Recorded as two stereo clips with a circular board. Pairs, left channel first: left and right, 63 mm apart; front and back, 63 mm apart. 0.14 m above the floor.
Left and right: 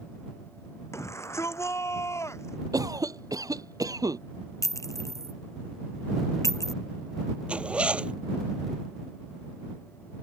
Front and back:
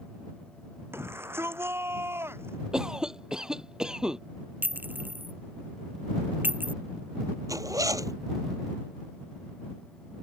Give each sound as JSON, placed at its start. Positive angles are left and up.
{"t": 0.9, "sound": "a shout", "azimuth_deg": 130}
{"t": 2.7, "sound": "a cough", "azimuth_deg": -100}
{"t": 4.6, "sound": "a clink", "azimuth_deg": 120}
{"t": 7.5, "sound": "a zipper", "azimuth_deg": -160}